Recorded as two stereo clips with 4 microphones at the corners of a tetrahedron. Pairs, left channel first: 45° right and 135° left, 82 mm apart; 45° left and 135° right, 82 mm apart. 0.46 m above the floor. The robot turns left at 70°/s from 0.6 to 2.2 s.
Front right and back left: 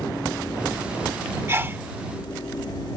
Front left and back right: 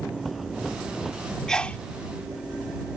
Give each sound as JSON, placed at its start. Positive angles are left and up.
{"t": 1.5, "sound": "a sneeze", "azimuth_deg": 120}